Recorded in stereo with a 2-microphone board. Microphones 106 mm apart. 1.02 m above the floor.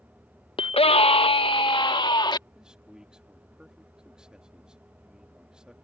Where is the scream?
60° left (ahead or behind); by 2.4 s 45° left (ahead or behind).